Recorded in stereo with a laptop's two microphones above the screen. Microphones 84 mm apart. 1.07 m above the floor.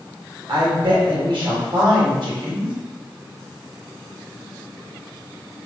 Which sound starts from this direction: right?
A woman speaking, at 0.5 s.